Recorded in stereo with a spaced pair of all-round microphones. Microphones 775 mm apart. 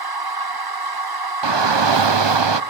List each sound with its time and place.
0.0 s a machine running: 30° right (ahead or behind), 0.9 m
1.4 s a shout: 35° right (ahead or behind), 0.7 m